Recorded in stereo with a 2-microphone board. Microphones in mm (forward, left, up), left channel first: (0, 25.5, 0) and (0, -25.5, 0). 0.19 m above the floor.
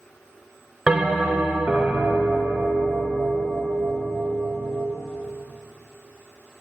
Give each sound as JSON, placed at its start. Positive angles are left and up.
{"t": 0.9, "sound": "a bell", "side_deg": -5, "distance_m": 0.9}